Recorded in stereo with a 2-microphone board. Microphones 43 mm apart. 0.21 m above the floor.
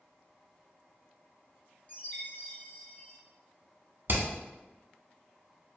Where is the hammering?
55° right (ahead or behind), 0.6 m.